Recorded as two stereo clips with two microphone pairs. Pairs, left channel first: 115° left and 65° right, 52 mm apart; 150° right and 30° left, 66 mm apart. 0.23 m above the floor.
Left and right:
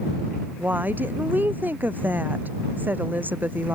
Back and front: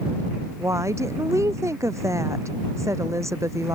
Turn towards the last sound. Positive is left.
turn(degrees=-10)